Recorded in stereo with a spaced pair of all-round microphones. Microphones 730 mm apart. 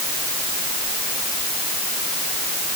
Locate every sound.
Only background noise.